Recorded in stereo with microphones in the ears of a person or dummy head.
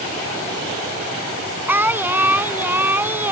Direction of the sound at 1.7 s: 5° right (ahead or behind).